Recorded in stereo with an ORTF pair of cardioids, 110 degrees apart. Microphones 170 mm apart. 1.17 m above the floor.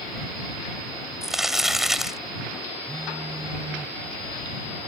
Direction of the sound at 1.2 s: Straight ahead.